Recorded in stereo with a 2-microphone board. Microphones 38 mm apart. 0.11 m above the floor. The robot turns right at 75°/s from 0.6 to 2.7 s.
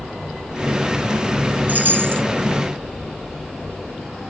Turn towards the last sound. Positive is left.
turn(degrees=-55)